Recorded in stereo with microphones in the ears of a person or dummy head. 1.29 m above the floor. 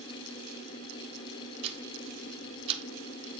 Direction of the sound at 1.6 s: 30° right (ahead or behind).